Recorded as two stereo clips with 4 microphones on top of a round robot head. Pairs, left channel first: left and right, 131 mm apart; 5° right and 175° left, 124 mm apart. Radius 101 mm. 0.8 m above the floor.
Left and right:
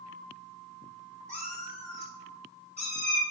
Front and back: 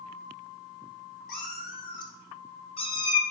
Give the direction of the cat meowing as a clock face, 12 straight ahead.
12 o'clock.